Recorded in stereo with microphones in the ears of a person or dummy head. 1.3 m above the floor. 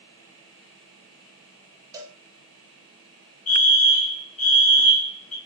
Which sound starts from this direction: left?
A fire alarm, at 3.5 s.